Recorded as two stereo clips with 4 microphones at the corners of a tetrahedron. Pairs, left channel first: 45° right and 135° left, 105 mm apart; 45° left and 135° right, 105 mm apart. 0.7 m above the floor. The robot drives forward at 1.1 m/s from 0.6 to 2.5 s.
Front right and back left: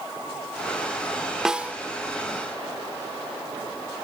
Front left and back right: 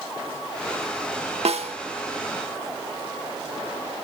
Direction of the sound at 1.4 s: 140° right.